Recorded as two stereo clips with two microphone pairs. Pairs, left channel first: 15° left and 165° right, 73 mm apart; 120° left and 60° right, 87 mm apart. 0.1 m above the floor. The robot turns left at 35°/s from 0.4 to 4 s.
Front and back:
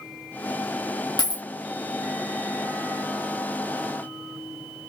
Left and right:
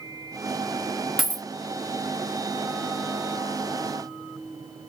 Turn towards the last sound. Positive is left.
turn(degrees=-65)